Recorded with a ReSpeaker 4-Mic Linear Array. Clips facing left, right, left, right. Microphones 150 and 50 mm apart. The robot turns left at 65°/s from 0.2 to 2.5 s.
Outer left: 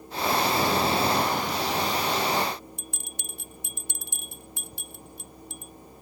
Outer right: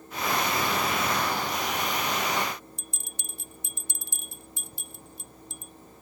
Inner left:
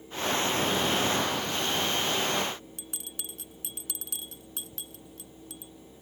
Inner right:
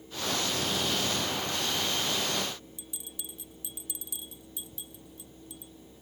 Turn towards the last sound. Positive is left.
turn(degrees=60)  # may be behind; listen again after turning